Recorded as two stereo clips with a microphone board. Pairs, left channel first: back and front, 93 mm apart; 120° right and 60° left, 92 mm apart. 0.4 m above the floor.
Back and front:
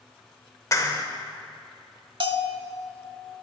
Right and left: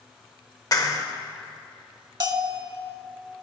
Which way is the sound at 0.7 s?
145° right.